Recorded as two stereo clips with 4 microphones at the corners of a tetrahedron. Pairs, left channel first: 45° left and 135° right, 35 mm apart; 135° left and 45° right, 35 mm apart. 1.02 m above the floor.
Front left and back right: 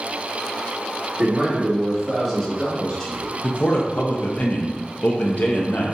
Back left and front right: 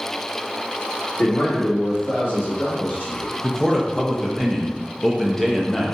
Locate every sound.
1.2 s a man speaking: 170° left, 1.6 m; by 3.3 s 120° left, 1.7 m
3.4 s a man speaking: 55° left, 0.6 m